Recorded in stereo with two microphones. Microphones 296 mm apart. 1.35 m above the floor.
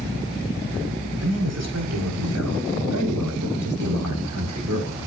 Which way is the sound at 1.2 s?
55° right (ahead or behind).